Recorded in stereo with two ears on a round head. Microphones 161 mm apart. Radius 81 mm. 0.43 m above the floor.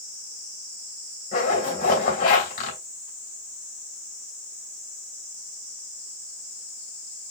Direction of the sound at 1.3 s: 45° left (ahead or behind).